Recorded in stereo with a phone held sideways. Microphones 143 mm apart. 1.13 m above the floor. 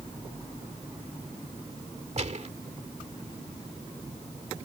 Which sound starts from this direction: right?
A gunshot, at 2.2 s.